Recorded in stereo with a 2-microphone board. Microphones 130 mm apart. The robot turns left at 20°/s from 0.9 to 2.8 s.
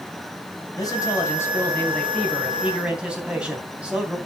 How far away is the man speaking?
About 3.5 m.